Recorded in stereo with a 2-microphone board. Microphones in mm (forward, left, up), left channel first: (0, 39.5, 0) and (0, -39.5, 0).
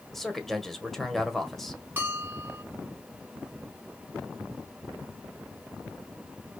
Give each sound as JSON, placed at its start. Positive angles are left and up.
{"t": 0.1, "sound": "a man speaking", "side_deg": 5, "distance_m": 1.4}
{"t": 2.0, "sound": "a bell", "side_deg": -25, "distance_m": 2.5}